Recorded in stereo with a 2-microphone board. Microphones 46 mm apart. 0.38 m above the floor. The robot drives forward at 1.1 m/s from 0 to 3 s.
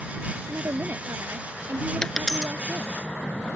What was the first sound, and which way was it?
A woman speaking, 75° right (ahead or behind).